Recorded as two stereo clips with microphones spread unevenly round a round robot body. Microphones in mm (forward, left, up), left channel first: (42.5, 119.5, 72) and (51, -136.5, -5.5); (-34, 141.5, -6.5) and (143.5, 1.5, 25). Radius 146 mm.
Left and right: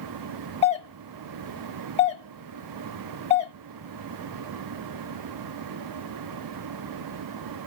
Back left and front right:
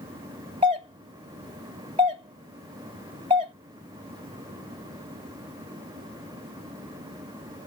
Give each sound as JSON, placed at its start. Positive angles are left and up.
{"t": 0.6, "sound": "a doorbell", "azimuth_deg": 20, "distance_m": 1.5}